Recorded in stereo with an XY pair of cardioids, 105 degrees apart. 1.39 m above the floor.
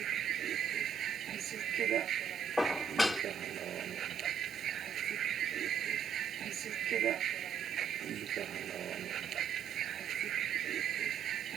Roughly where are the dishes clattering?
Ahead.